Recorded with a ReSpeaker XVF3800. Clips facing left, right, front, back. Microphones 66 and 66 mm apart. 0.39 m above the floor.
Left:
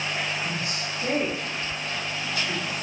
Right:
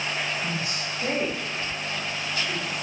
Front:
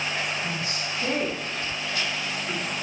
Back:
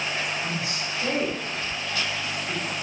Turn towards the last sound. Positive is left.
turn(degrees=-30)